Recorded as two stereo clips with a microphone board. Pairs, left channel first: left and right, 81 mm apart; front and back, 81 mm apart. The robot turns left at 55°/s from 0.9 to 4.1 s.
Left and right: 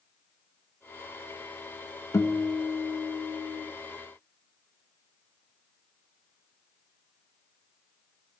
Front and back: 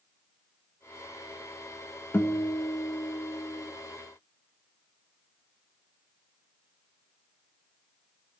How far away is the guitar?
About 1.2 m.